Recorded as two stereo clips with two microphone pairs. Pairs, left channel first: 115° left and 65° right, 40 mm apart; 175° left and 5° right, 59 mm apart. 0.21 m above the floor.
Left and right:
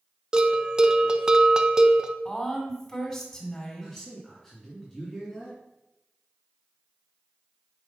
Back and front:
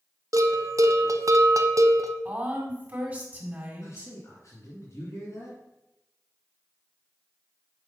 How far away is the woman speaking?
About 1.8 m.